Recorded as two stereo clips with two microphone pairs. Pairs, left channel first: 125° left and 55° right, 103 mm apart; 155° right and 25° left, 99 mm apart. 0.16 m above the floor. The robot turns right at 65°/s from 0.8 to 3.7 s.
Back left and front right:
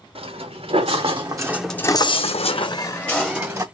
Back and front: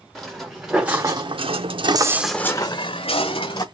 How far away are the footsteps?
About 1.4 m.